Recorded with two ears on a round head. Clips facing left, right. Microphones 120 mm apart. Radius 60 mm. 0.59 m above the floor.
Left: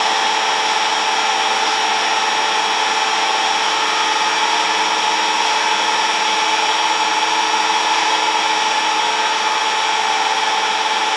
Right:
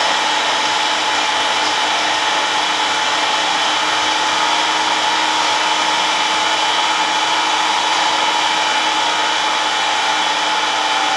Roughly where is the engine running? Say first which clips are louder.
Even; right.